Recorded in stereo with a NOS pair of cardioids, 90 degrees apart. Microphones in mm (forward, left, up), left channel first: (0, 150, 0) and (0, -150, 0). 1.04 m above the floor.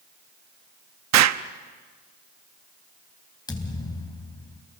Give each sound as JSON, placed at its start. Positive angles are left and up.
{"t": 1.1, "sound": "an explosion", "azimuth_deg": -65, "distance_m": 0.8}
{"t": 3.5, "sound": "a thud", "azimuth_deg": 15, "distance_m": 3.5}